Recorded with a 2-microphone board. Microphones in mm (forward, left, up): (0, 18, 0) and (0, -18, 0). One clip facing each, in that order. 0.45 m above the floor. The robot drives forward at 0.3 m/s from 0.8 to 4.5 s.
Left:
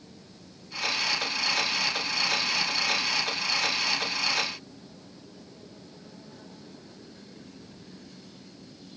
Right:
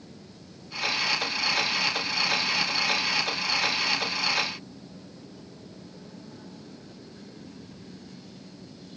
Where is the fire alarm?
I don't hear a fire alarm.